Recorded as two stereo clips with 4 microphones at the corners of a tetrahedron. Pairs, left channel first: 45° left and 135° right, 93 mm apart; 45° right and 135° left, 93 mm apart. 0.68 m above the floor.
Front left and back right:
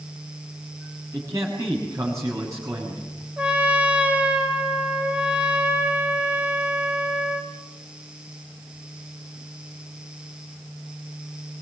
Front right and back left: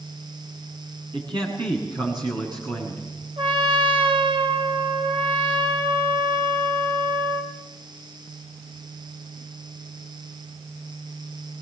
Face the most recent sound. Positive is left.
turn(degrees=150)